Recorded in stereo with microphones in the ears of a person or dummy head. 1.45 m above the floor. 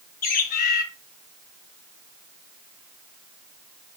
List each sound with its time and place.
0.2 s a bird: 55° left (ahead or behind), 2.5 m